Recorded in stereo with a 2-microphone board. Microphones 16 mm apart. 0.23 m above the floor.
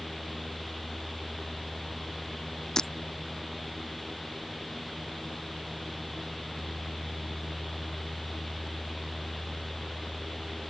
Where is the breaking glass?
40° left (ahead or behind).